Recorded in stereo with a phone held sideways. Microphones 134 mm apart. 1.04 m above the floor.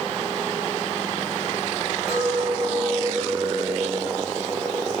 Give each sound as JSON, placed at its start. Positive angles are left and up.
{"t": 2.1, "sound": "a clink", "side_deg": 45, "distance_m": 5.0}